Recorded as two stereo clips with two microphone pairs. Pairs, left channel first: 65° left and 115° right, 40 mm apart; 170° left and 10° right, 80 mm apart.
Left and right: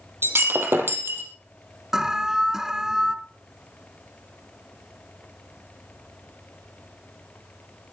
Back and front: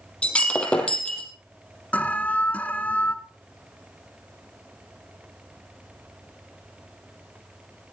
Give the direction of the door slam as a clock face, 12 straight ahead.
No door slam in this recording.